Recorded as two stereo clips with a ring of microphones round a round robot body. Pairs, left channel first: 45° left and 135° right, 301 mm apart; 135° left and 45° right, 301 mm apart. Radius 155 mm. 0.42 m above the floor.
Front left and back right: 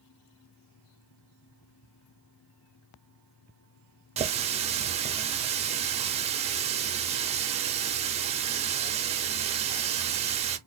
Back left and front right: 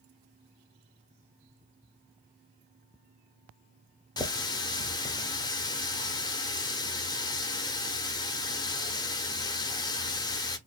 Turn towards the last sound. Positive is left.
turn(degrees=-165)